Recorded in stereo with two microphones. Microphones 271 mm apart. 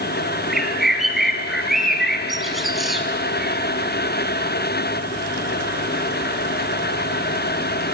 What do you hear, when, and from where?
0.5 s a bird: centre (ahead or behind), 1.8 m